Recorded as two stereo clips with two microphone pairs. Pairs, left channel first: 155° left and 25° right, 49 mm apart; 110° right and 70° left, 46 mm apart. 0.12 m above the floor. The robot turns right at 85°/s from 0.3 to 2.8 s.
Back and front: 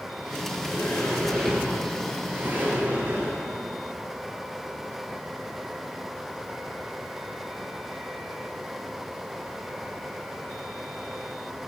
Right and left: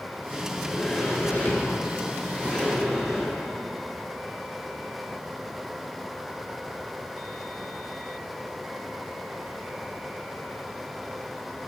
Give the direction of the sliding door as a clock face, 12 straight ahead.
7 o'clock.